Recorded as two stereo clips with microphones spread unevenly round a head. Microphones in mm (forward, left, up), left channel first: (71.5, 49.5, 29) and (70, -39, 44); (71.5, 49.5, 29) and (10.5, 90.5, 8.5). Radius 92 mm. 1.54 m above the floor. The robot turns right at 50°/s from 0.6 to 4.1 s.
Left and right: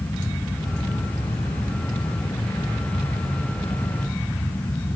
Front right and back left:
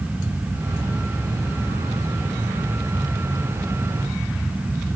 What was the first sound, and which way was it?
Only background noise.